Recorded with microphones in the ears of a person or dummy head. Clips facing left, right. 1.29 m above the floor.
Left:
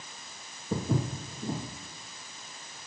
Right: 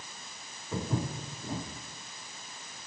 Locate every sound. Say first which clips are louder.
0.7 s footsteps: left 3 dB; 35° left (ahead or behind), 1.5 m